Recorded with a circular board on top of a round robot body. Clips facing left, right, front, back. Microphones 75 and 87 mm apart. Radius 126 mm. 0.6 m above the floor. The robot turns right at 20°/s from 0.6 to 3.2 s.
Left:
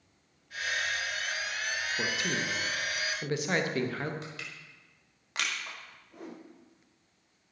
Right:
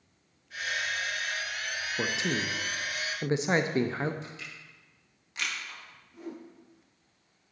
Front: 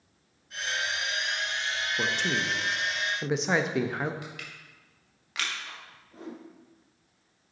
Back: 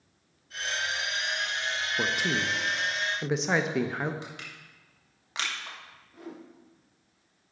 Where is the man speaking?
115° right, 0.7 m; by 4.1 s 90° right, 0.7 m.